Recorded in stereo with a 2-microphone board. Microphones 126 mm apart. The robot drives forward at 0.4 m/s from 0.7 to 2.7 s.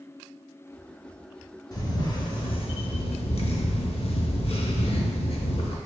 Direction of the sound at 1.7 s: 30° left (ahead or behind).